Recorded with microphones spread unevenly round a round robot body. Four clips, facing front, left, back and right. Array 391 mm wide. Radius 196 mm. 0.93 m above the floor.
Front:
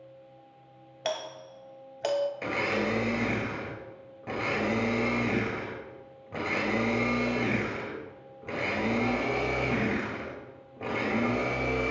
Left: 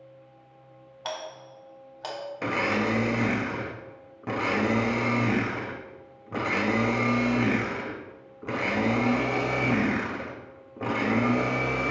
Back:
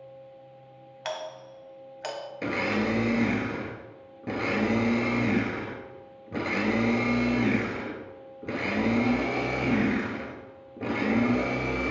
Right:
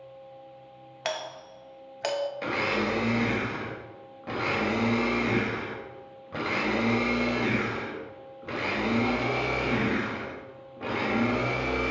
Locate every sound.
1.1 s a doorbell: 40° right, 0.8 m
2.4 s a blender: 150° left, 1.0 m